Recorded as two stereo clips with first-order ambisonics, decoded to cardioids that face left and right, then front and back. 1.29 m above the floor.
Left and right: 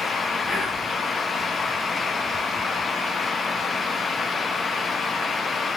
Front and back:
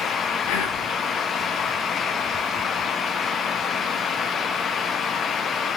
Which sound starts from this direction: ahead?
Whispering, at 0.5 s.